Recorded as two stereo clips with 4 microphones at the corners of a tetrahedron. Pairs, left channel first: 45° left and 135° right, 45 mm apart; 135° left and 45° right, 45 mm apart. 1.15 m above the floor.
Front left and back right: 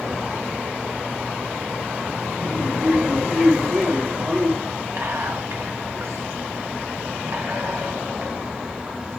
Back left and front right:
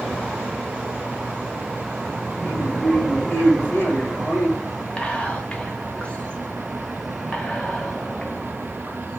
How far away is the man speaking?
About 1.4 m.